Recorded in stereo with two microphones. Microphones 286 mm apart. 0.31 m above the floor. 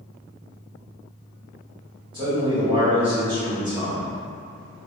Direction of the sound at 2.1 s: 15° right (ahead or behind).